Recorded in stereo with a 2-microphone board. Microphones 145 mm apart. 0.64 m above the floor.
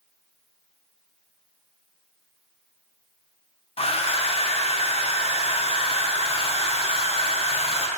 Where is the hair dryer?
45° left (ahead or behind), 0.6 m.